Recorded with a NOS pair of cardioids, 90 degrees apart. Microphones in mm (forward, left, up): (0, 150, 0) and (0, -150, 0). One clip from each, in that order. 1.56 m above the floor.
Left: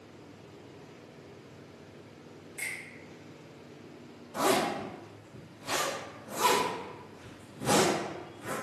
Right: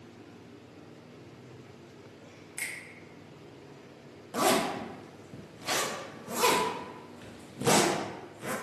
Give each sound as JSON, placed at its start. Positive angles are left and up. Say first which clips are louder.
{"t": 2.6, "sound": "a finger snap", "louder": "even", "azimuth_deg": -45, "distance_m": 0.9}
{"t": 4.3, "sound": "a zipper", "louder": "right 1 dB", "azimuth_deg": -45, "distance_m": 0.8}